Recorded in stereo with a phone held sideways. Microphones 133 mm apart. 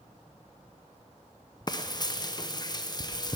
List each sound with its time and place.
1.7 s frying: 35° left (ahead or behind), 0.6 m